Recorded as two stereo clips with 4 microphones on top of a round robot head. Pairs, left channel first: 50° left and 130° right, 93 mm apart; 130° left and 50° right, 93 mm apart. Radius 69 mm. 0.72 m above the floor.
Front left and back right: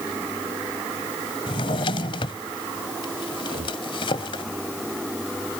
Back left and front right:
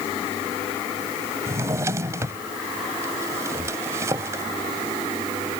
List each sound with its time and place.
1.5 s a drawer: 10° left
3.4 s breathing: 125° right